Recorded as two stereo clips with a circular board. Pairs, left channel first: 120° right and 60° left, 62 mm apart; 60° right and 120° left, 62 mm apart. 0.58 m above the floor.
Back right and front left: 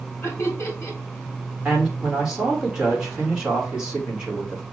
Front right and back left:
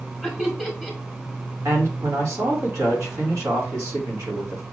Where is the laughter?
160° right, 1.7 m.